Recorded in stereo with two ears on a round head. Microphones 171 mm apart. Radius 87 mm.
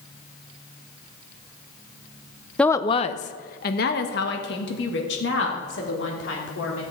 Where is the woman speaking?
5° left (ahead or behind), 0.5 m; by 6.8 s 65° left (ahead or behind), 3.5 m.